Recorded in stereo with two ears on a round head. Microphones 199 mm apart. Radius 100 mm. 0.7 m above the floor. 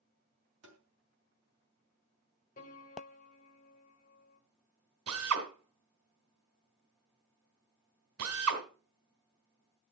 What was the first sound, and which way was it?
Tapping, 55° right (ahead or behind).